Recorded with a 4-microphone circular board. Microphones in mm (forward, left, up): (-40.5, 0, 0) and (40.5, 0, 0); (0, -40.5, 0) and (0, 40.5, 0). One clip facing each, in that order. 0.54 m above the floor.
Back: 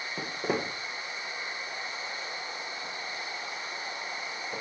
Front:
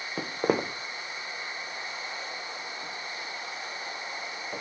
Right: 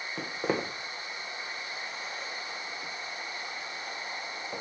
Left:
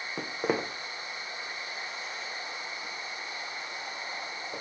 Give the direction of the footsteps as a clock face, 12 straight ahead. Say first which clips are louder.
Front 5 dB, left 1 dB; 11 o'clock.